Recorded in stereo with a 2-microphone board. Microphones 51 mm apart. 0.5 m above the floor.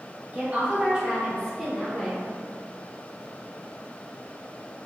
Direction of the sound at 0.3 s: 35° right (ahead or behind).